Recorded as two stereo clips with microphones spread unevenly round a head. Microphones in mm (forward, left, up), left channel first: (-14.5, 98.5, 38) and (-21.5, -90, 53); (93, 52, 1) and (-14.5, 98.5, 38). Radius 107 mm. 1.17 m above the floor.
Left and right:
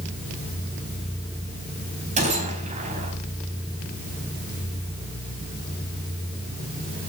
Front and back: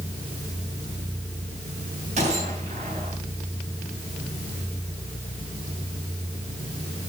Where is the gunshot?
145° right, 4 m.